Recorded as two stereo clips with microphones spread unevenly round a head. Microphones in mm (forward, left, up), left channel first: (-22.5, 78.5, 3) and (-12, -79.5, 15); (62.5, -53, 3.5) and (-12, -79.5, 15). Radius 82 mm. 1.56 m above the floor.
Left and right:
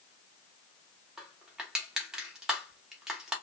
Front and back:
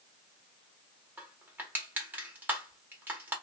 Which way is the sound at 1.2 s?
160° right.